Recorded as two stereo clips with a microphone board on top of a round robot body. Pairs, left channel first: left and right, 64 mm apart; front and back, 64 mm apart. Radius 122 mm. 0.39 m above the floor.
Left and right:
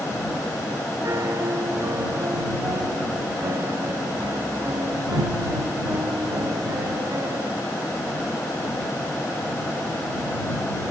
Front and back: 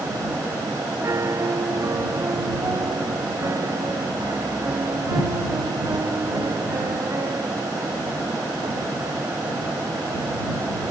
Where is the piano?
140° right.